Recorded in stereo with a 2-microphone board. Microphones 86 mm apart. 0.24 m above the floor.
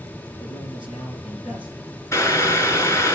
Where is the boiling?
35° left (ahead or behind), 1.4 m.